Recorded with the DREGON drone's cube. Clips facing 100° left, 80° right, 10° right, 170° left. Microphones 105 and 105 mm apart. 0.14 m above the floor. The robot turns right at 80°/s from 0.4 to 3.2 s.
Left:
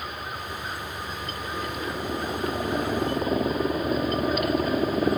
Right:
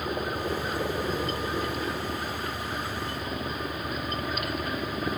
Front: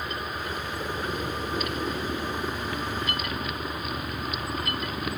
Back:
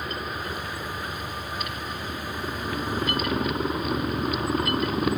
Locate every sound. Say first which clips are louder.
0.0 s a helicopter: right 5 dB, back 1 dB; 105° right; by 5.2 s 130° left